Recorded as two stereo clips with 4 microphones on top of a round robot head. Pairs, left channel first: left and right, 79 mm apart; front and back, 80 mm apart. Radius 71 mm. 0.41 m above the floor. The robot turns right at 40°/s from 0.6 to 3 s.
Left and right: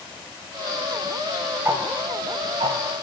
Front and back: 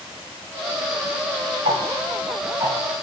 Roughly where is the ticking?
Behind right.